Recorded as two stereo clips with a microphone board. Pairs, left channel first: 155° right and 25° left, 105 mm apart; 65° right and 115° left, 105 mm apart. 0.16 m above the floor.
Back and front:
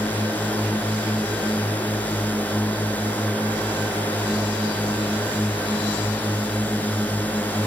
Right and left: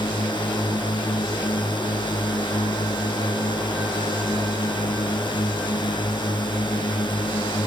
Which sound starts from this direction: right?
A drone, at 0.0 s.